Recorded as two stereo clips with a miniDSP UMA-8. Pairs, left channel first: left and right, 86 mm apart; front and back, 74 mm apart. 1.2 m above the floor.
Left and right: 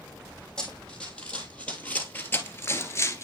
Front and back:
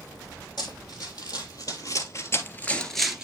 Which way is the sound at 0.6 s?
10° left.